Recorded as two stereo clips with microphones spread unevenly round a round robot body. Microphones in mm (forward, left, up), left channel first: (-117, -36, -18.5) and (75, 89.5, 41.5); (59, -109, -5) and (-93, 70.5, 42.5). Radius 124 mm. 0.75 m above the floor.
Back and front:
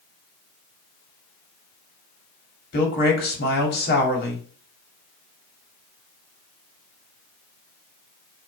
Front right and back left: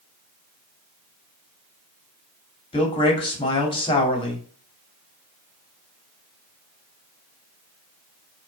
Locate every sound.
2.7 s a man speaking: 110° right, 2.5 m